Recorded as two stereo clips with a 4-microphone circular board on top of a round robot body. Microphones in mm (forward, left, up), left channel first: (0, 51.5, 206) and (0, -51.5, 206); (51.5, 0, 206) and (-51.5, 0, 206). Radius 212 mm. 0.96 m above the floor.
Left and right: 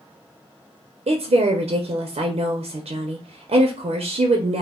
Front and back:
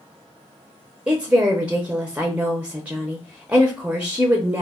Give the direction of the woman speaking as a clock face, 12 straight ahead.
3 o'clock.